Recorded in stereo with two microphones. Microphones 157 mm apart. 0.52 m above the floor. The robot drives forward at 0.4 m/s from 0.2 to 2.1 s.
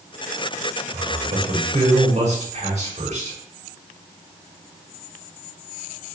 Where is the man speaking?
60° right (ahead or behind), 5 m; by 3.4 s 55° right (ahead or behind), 5.5 m.